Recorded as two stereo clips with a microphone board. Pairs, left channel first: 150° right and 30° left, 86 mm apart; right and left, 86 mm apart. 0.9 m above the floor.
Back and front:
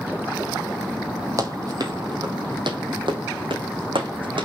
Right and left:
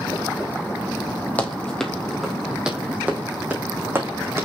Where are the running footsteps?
15° right, 2.0 m; by 4.4 s 30° left, 3.5 m.